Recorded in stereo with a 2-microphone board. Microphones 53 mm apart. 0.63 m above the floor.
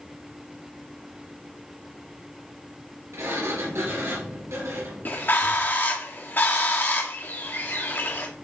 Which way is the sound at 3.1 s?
65° right (ahead or behind).